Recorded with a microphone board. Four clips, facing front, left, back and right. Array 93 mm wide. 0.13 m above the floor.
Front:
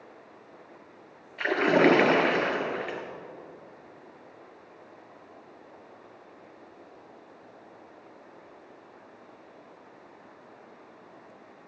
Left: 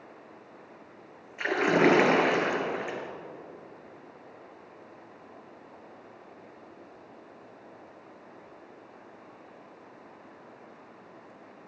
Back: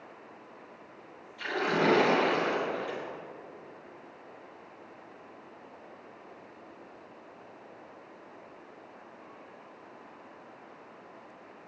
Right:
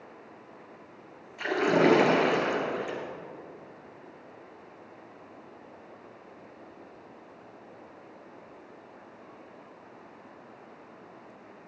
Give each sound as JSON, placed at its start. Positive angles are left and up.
{"t": 1.4, "sound": "a splash", "azimuth_deg": 30, "distance_m": 1.8}